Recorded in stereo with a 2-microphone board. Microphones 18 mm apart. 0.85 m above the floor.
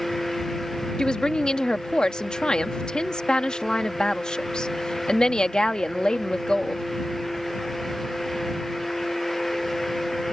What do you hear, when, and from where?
1.0 s a woman speaking: 50° left (ahead or behind)